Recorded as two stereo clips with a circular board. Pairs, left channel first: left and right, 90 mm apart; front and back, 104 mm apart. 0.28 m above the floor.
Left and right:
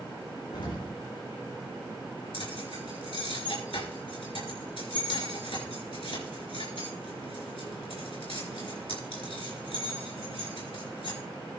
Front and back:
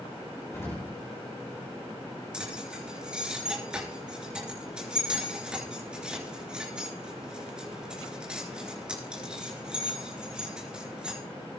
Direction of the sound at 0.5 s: 60° left.